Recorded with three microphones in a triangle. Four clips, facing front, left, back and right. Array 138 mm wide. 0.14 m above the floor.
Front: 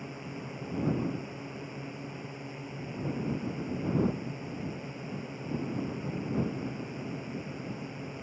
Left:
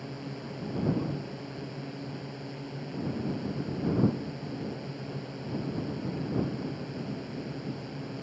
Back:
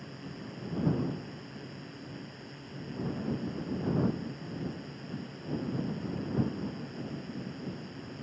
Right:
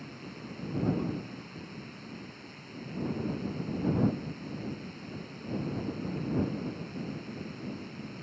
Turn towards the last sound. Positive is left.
turn(degrees=55)